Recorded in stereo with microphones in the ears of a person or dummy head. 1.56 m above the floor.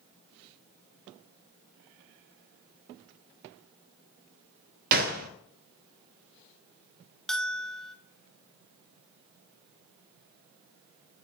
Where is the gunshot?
50° right (ahead or behind), 0.7 m.